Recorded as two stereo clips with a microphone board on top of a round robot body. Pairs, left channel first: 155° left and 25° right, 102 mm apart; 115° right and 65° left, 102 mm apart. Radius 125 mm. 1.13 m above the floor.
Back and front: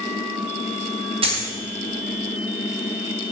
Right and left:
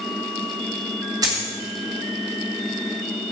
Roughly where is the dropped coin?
Ahead.